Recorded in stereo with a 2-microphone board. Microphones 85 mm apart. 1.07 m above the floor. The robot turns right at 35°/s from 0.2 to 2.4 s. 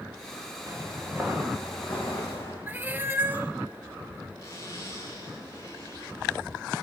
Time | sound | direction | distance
0.7 | footsteps | 40° right (ahead or behind) | 8.5 m
2.7 | a cat meowing | 25° right (ahead or behind) | 1.0 m
4.4 | a zipper | 40° left (ahead or behind) | 7 m